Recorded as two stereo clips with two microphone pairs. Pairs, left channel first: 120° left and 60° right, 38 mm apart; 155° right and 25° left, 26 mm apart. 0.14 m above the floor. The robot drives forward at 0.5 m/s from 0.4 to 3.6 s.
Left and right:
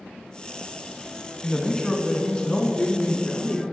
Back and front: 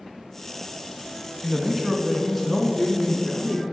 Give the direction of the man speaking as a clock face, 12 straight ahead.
10 o'clock.